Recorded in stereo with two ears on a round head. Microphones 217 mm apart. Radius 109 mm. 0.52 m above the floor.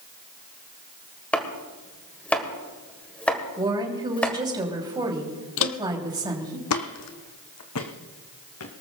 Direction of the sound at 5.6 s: 55° left (ahead or behind).